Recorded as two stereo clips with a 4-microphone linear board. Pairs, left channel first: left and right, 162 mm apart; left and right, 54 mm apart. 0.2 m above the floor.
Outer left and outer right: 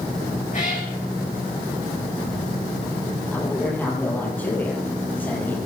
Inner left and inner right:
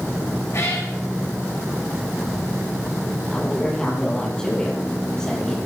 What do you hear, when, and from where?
0.5 s a cat meowing: 50° left (ahead or behind), 7 m
3.3 s a woman speaking: 10° left (ahead or behind), 6.5 m